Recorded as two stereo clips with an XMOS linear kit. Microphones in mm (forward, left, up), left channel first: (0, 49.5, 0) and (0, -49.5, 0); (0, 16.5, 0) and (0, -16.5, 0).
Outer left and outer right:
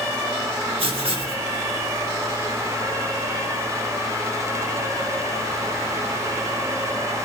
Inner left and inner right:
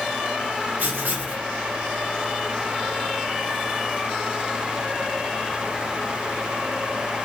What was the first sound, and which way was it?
Writing, 70° right (ahead or behind).